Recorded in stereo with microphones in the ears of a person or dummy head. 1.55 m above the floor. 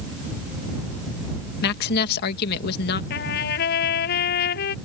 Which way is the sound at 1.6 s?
55° left (ahead or behind).